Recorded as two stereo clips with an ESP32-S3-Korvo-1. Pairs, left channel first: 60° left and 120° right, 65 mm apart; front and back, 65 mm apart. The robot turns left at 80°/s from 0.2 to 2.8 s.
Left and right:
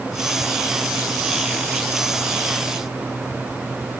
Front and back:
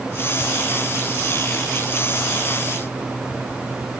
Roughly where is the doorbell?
No doorbell in this recording.